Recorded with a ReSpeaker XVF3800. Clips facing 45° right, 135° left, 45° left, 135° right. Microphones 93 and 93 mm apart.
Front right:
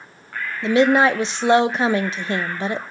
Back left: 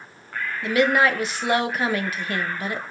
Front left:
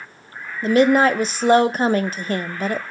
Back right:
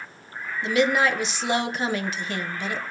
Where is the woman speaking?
10° left, 0.5 m.